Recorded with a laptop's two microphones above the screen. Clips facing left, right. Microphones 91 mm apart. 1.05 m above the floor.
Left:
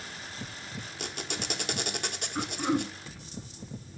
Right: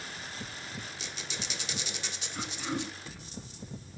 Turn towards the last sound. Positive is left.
turn(degrees=50)  # may be behind; listen again after turning